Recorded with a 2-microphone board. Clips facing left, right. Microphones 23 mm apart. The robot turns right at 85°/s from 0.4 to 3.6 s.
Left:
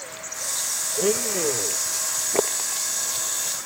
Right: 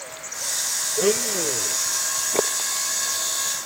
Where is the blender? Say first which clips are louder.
Right 1 dB; 30° right; by 1.8 s 40° left.